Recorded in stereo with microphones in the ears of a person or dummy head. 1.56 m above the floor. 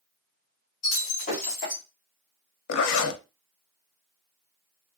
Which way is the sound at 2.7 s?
85° left.